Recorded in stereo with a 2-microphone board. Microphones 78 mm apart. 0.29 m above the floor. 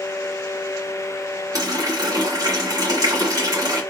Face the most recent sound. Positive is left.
turn(degrees=-55)  # may be behind; listen again after turning